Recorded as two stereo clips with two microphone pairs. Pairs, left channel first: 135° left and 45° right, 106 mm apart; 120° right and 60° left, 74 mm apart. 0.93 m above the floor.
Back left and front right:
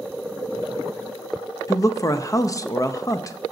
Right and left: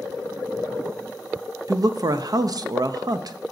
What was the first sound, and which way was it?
A man speaking, 85° left.